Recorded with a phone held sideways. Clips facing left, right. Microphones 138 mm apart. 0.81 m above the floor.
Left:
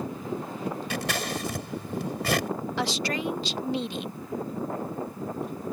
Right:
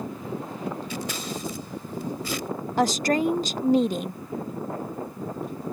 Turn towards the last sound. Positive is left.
turn(degrees=-45)  # may be behind; listen again after turning